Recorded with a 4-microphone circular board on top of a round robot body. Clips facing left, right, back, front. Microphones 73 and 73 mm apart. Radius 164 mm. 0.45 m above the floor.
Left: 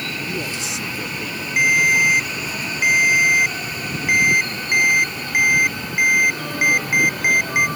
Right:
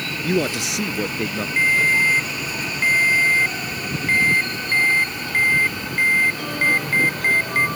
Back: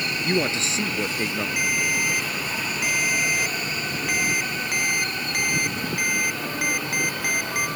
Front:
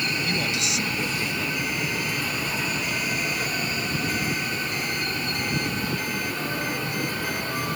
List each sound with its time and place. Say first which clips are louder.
0.2 s a man speaking: right 6 dB, back 3 dB; 120° right
1.6 s a ringtone: left 2 dB, back 3 dB; 165° left